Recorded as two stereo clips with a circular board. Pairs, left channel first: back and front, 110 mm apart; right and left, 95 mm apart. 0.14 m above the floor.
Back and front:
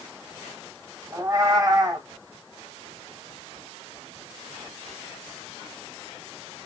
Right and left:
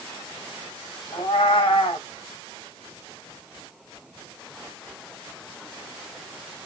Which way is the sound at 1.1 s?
55° right.